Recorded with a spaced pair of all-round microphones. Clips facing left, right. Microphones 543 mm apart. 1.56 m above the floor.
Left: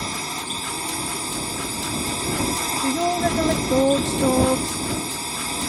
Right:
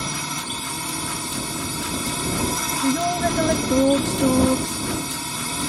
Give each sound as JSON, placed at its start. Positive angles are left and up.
{"t": 0.0, "sound": "a drone", "side_deg": -35}
{"t": 2.8, "sound": "a woman speaking", "side_deg": -35}